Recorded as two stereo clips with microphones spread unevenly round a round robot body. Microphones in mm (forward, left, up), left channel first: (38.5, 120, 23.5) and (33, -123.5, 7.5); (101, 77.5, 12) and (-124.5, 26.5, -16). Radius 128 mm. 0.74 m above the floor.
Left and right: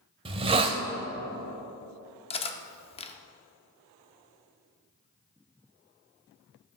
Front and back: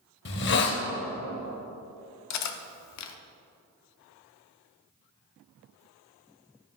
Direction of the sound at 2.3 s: 20° left.